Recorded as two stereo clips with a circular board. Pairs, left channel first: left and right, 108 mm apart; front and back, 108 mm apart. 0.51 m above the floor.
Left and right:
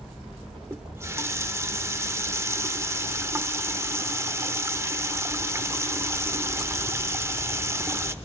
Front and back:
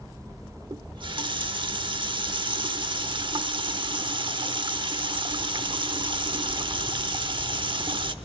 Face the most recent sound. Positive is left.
turn(degrees=-150)